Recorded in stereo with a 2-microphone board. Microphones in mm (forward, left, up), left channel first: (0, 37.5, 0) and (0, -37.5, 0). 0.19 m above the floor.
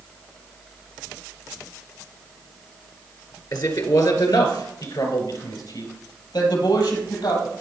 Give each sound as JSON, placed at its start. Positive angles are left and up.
{"t": 3.5, "sound": "a man speaking", "side_deg": 60, "distance_m": 2.0}